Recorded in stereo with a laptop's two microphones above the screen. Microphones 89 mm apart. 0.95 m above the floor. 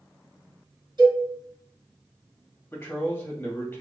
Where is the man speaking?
30° left (ahead or behind), 1.6 m.